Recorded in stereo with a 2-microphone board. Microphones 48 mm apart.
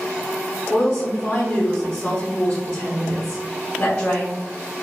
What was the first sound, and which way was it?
A woman speaking, 25° left (ahead or behind).